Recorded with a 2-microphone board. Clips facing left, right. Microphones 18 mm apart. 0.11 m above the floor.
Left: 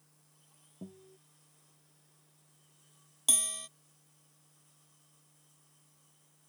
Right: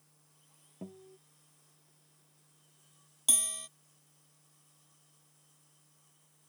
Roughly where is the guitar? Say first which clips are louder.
Right 2 dB; right.